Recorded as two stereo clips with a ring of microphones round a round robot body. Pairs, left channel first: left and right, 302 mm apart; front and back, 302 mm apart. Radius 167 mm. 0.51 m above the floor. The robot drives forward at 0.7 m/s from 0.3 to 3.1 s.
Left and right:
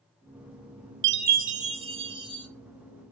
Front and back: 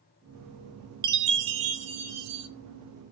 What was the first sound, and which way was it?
A chime, 145° right.